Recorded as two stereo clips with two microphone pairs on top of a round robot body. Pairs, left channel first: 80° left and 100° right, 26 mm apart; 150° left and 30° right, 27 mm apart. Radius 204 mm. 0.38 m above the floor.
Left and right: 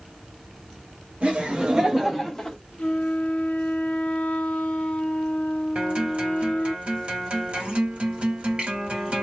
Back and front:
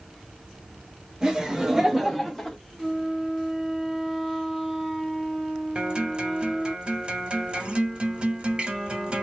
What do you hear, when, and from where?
1.2 s laughter: 75° right, 1.9 m; by 2.6 s 50° left, 1.5 m
2.8 s a flute: 50° left, 0.6 m
5.8 s a guitar: 65° right, 1.9 m